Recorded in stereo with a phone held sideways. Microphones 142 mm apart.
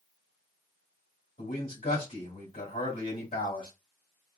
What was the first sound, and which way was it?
A man speaking, 70° left (ahead or behind).